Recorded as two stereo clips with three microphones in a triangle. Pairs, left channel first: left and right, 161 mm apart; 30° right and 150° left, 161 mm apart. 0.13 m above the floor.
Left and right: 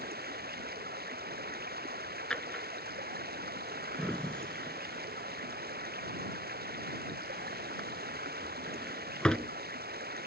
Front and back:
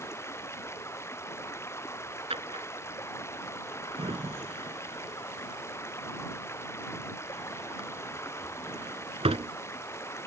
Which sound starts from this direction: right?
Running water, at 0.0 s.